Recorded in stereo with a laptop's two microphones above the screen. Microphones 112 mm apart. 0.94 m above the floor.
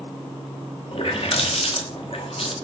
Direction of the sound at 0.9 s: 55° left (ahead or behind).